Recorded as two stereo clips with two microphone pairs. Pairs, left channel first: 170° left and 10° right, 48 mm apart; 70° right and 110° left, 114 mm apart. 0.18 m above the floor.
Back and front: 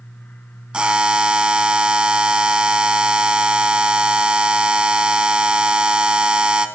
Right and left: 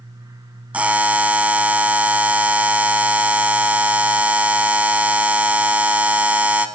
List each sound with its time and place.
0.7 s a buzzer: 45° left, 0.7 m